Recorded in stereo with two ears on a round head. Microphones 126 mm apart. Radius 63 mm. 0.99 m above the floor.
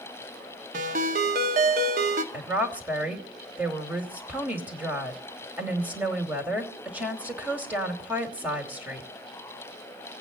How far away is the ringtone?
About 1.5 m.